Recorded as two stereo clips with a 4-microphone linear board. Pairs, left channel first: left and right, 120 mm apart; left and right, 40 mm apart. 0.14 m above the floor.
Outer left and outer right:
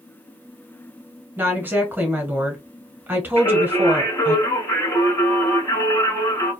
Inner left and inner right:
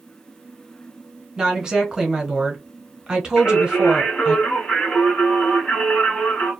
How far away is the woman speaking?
About 1.2 m.